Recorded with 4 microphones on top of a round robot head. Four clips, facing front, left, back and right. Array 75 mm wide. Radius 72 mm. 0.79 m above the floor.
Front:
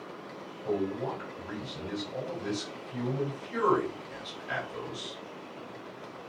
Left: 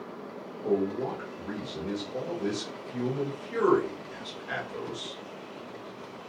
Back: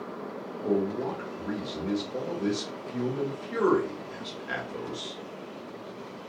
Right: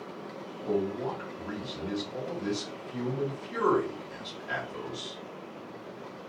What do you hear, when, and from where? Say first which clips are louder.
0.6 s a man speaking: left 2 dB, back 3 dB; 160° left, 1.9 m